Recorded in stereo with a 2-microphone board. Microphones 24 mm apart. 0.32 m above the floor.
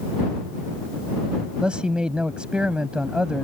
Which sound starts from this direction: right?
A man speaking, at 1.6 s.